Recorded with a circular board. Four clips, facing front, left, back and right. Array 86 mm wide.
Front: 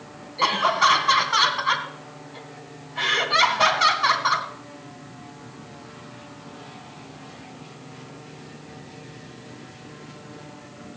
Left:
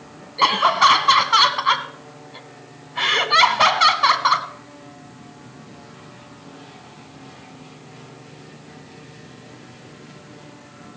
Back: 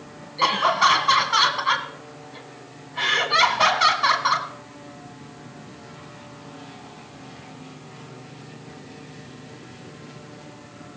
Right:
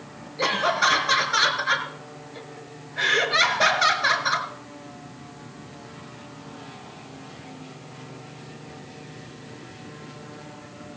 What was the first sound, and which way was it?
Laughter, 95° left.